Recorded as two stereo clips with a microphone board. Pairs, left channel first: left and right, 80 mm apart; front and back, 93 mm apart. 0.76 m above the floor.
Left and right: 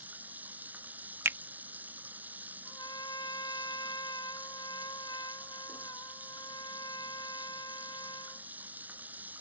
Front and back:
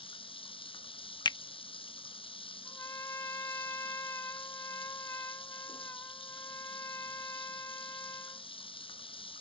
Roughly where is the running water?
Ahead.